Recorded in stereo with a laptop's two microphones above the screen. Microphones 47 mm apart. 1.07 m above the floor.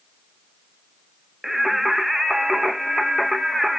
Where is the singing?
5° right (ahead or behind), 0.5 m.